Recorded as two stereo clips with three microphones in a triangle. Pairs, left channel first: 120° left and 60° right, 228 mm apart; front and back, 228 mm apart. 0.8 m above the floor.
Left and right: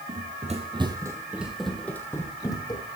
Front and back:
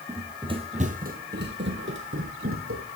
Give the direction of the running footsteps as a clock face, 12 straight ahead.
3 o'clock.